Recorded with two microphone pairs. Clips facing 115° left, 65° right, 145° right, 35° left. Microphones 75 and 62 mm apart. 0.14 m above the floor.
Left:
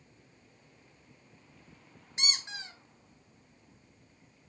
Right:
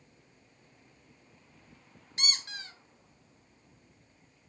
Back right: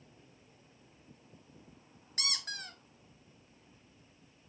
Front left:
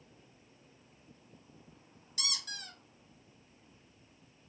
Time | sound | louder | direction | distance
2.2 | a squeak | even, back right 2 dB | 175° right | 0.5 m